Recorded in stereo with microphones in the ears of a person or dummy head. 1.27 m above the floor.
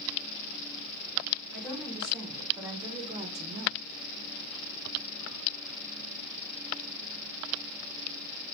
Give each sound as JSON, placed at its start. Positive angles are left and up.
{"t": 1.5, "sound": "a woman speaking", "side_deg": -10, "distance_m": 1.4}